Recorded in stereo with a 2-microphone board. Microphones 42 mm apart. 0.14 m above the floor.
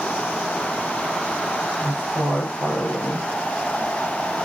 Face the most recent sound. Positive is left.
turn(degrees=55)  # may be behind; listen again after turning